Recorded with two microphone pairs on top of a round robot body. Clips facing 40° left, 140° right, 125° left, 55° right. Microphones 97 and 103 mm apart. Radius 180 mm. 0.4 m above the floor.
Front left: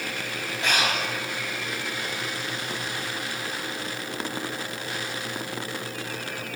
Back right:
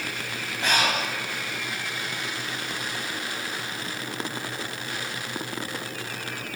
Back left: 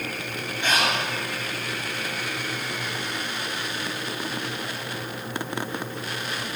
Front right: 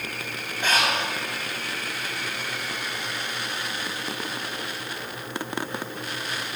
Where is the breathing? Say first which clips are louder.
Back right 1 dB, even; 90° right, 2.5 m.